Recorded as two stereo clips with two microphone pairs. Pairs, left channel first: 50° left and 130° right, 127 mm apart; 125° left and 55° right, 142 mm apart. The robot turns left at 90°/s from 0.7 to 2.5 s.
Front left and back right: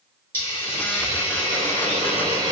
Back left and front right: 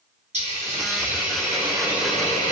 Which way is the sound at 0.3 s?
20° right.